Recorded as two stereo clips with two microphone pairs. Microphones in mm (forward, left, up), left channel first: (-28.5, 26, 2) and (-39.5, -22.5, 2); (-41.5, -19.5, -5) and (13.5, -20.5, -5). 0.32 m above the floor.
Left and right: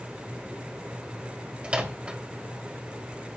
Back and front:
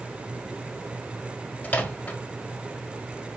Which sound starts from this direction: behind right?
A microwave, at 1.6 s.